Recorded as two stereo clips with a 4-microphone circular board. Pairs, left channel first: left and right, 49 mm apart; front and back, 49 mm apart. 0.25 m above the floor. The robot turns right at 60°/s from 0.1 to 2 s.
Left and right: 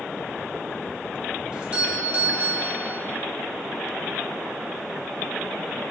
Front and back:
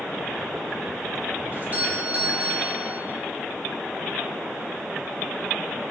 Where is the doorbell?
160° right, 2.0 m; by 3.0 s 130° right, 2.0 m.